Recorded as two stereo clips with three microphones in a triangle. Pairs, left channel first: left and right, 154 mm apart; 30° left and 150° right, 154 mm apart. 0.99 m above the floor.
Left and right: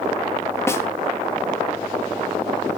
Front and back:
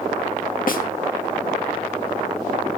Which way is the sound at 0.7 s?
20° left.